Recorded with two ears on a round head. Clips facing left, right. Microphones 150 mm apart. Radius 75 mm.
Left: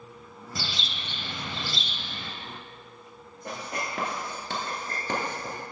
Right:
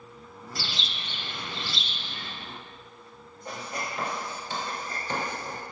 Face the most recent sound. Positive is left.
turn(degrees=55)  # may be behind; listen again after turning